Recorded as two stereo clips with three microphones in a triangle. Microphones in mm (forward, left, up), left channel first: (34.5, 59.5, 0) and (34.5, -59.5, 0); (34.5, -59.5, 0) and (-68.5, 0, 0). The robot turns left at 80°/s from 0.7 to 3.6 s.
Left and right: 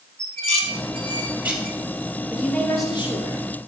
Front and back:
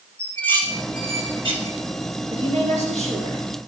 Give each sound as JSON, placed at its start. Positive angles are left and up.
{"t": 0.2, "sound": "dishes clattering", "azimuth_deg": -105, "distance_m": 2.5}
{"t": 2.3, "sound": "a woman speaking", "azimuth_deg": -170, "distance_m": 4.5}